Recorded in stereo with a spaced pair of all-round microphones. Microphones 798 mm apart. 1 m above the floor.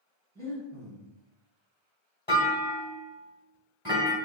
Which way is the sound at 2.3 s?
15° left (ahead or behind).